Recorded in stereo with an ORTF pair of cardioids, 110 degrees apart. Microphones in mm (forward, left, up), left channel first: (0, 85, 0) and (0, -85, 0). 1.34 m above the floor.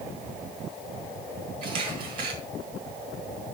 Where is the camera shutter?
65° right, 4.5 m.